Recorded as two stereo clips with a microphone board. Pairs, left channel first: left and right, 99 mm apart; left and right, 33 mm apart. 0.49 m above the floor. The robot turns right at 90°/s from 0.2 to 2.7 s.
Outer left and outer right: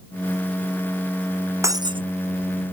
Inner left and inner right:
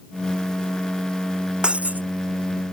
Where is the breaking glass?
150° right; by 2.0 s 110° right.